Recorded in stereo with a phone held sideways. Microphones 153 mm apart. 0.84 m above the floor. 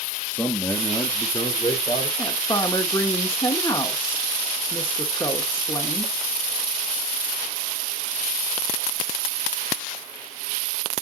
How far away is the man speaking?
About 1.1 m.